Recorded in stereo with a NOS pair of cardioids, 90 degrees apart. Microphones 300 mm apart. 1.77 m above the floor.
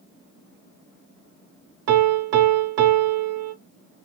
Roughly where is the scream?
No scream in this recording.